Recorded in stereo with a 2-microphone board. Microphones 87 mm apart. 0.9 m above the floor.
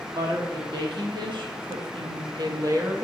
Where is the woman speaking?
55° right (ahead or behind), 1.7 m; by 3.0 s 25° right (ahead or behind), 0.7 m.